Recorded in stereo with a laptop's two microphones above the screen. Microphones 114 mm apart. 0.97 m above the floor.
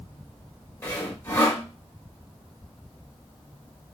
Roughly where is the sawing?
Centre.